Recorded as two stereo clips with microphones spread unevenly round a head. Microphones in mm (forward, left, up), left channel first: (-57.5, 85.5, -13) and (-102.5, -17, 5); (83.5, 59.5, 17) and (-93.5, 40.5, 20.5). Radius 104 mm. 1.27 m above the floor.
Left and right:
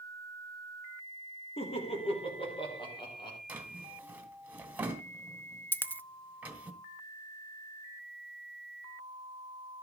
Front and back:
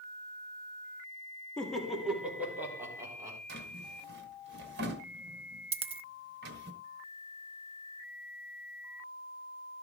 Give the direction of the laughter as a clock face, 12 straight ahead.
9 o'clock.